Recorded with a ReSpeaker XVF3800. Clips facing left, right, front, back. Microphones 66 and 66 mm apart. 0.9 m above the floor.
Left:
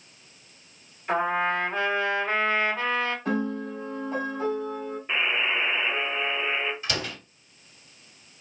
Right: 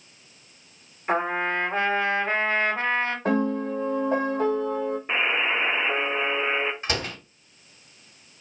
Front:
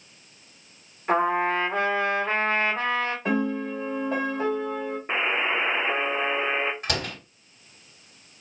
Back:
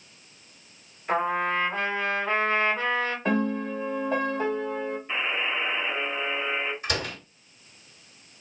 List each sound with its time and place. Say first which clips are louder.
1.1 s a trumpet: even, front 3 dB; 35° right, 1.6 m
3.2 s a piano: right 4 dB, back 1 dB; 85° right, 1.0 m
5.1 s a buzzer: even, front 6 dB; 30° right, 0.6 m
6.8 s a door slam: right 2 dB, even; 35° right, 1.9 m